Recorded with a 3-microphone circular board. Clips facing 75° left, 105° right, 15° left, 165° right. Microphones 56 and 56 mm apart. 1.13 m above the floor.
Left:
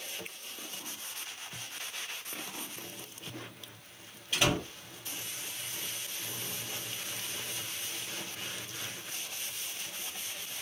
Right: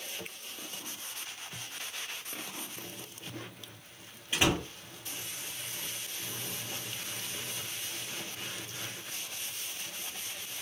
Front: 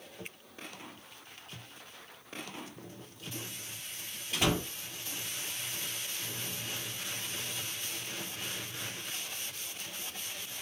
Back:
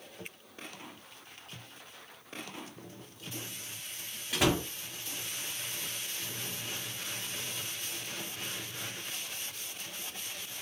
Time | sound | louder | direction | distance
4.3 | a door slam | right 1 dB, back 2 dB | 170° right | 1.9 m